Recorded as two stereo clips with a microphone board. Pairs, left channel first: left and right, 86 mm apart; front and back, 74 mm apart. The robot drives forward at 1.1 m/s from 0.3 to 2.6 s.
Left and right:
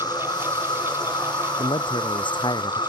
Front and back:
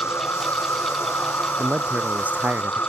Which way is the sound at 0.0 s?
55° left.